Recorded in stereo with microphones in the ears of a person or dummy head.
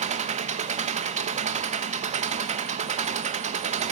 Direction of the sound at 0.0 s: 40° right (ahead or behind).